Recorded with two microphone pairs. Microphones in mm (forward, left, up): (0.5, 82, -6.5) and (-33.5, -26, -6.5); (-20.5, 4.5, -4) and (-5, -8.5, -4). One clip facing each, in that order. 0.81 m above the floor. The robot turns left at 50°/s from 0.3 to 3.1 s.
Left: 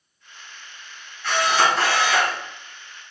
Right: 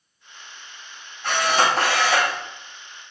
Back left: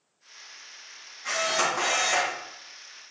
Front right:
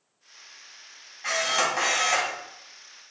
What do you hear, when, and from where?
1.2 s a camera shutter: 65° right, 2 m; by 2.4 s 125° right, 2 m